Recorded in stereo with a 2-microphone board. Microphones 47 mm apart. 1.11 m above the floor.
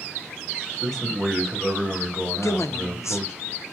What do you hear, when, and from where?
0.8 s a man speaking: 10° left (ahead or behind), 1.6 m
2.4 s a woman speaking: 80° left, 0.5 m